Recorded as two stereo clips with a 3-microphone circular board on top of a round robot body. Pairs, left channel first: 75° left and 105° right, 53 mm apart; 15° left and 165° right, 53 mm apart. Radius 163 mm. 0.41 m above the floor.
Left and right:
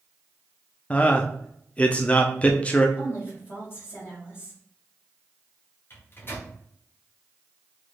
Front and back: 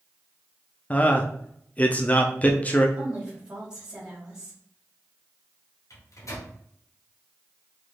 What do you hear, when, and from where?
0.9 s a man speaking: 40° left, 0.8 m
3.0 s a woman speaking: 120° left, 3 m
5.9 s a microwave: 30° left, 1.7 m